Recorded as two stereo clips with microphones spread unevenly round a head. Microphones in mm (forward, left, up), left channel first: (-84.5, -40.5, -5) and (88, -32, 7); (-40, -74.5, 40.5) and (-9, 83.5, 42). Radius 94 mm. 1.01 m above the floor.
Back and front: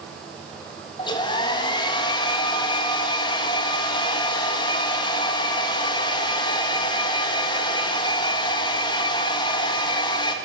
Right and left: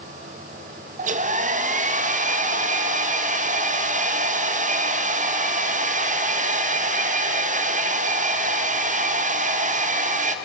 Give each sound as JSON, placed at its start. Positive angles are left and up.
{"t": 1.0, "sound": "a hair dryer", "azimuth_deg": 120, "distance_m": 1.4}